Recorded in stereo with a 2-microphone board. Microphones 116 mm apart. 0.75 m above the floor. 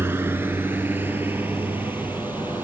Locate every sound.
0.0 s a vehicle: 20° right (ahead or behind); by 2.6 s 15° right (ahead or behind)